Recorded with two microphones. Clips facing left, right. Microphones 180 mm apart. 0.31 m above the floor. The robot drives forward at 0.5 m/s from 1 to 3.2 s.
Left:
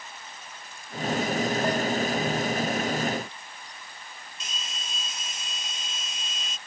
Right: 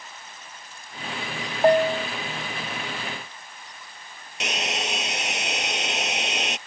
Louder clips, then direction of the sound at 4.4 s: Right 17 dB; 80° right.